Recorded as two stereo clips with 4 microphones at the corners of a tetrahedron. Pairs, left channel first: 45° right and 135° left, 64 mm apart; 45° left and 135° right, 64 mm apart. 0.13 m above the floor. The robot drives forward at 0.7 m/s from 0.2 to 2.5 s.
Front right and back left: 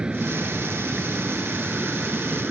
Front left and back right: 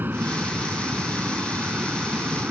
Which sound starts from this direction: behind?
An aircraft, at 0.0 s.